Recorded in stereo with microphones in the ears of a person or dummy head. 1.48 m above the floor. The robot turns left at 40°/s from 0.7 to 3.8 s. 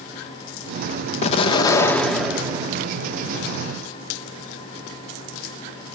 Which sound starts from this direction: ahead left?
An explosion, at 1.2 s.